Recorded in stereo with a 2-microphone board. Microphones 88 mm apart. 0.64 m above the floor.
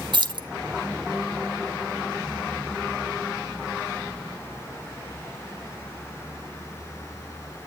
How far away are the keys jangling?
About 0.6 m.